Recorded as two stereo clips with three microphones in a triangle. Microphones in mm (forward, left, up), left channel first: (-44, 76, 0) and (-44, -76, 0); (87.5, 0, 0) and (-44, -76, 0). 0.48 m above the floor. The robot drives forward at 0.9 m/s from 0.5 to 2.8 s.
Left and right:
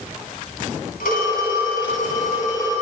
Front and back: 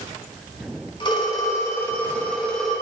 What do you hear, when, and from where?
1.0 s a phone ringing: 85° left, 2.5 m; by 2.7 s 120° left, 3 m